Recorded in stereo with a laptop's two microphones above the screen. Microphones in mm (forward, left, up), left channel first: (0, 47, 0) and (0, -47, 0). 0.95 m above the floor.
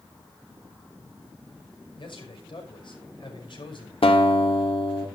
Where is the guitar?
75° left (ahead or behind), 2.5 m.